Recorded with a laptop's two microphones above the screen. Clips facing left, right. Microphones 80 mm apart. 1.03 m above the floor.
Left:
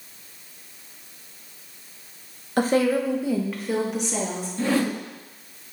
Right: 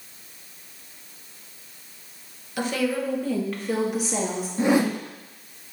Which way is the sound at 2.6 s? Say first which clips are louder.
Left 5 dB; 40° left (ahead or behind).